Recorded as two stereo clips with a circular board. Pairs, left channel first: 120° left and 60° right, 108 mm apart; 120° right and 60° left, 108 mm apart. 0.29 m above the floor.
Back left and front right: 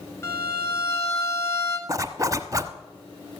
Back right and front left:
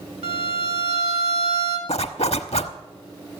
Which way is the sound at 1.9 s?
115° right.